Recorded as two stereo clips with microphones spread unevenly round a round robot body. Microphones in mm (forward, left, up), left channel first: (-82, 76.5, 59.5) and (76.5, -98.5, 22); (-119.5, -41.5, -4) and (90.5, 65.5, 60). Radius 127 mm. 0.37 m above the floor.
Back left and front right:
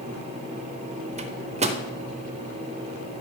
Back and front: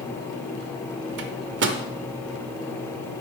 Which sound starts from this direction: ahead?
A microwave, at 1.2 s.